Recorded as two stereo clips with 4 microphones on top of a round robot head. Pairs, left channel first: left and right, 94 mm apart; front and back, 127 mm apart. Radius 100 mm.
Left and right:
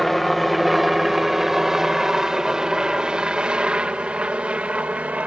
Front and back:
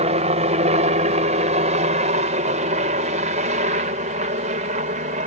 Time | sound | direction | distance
0.0 | a helicopter | straight behind | ?